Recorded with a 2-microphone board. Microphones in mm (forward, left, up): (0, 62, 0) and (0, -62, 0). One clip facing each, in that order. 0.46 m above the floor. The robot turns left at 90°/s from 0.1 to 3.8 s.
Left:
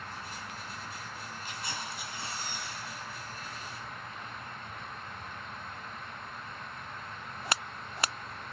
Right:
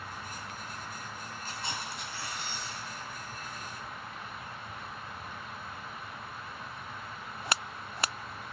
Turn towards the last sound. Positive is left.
turn(degrees=15)